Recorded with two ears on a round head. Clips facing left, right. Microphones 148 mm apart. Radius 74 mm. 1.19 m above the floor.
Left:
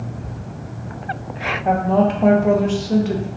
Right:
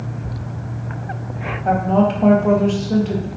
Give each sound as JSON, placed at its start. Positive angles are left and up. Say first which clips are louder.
{"t": 1.6, "sound": "a woman speaking", "louder": "even", "side_deg": 10, "distance_m": 0.5}